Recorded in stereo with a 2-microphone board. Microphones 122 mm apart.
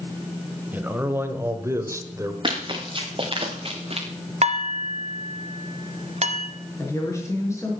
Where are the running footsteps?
45° right (ahead or behind), 3 m; by 4.1 s 55° right (ahead or behind), 1.6 m.